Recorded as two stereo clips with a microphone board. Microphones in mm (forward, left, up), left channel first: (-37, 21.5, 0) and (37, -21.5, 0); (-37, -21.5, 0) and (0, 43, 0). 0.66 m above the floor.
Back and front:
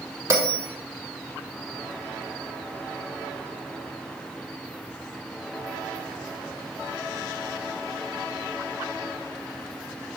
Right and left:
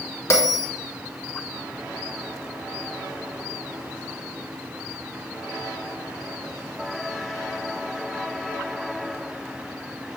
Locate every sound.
0.3 s a bell: 80° right, 1.3 m